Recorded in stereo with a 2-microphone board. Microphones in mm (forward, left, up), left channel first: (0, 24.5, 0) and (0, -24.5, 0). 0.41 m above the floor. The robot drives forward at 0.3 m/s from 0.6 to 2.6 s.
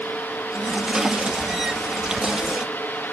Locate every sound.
Only background noise.